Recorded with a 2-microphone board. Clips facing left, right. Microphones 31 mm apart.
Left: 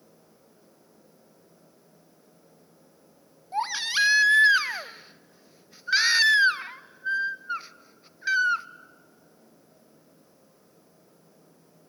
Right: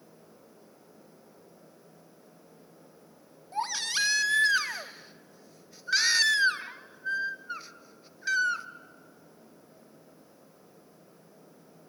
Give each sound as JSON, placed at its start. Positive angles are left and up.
{"t": 3.5, "sound": "a baby crying", "side_deg": 20, "distance_m": 0.6}